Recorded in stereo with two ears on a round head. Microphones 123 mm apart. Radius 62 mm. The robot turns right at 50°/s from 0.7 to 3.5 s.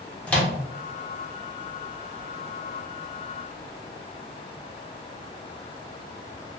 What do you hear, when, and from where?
0.3 s a microwave: 10° left (ahead or behind), 0.6 m